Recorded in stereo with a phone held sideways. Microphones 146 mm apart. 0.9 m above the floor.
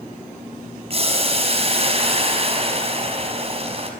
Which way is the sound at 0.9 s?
45° right (ahead or behind).